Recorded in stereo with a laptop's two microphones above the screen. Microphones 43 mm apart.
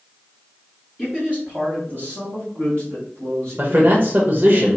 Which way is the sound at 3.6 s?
45° right (ahead or behind).